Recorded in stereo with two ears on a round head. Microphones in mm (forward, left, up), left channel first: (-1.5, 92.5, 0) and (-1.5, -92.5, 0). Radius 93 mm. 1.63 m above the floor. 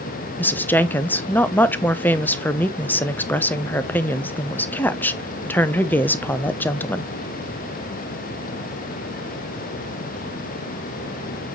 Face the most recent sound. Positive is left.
turn(degrees=10)  # may be behind; listen again after turning